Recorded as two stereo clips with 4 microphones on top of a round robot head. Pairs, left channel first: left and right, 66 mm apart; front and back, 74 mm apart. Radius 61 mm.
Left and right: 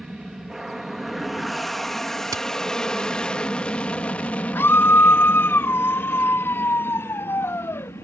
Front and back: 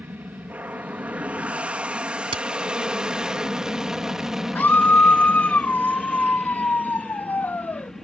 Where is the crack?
150° right.